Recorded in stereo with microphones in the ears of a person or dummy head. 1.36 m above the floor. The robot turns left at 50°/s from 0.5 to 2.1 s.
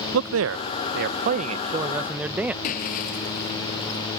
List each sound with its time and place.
0.1 s a man speaking: 90° right; by 2.5 s 170° right
2.6 s breaking glass: 50° left (ahead or behind)